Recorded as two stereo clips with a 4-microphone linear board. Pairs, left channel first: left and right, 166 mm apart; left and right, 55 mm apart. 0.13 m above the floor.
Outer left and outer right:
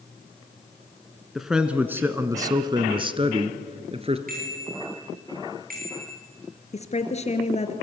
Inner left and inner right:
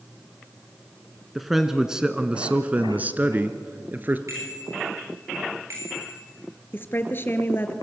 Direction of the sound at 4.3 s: 60° right (ahead or behind).